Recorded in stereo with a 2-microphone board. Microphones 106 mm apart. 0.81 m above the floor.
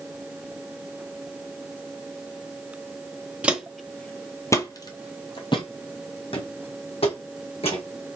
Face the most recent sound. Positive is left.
turn(degrees=70)  # may be behind; listen again after turning